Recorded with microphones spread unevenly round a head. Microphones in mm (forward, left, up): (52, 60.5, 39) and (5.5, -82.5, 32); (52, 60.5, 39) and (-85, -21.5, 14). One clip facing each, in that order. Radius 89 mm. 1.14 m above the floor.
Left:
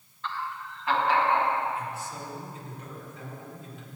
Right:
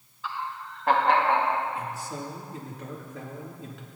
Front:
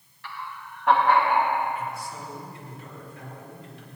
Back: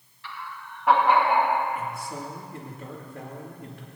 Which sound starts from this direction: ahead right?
Laughter, at 0.2 s.